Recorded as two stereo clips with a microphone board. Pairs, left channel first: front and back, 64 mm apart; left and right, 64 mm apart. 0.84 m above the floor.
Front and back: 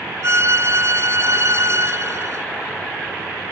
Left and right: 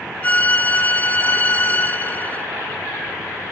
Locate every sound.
0.2 s a violin: 150° left, 0.8 m